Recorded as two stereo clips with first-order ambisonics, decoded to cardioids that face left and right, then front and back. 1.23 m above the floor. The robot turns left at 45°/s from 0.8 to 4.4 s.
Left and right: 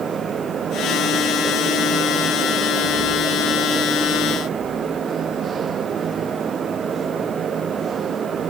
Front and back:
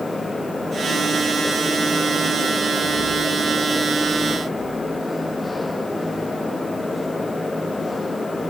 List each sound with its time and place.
Only background noise.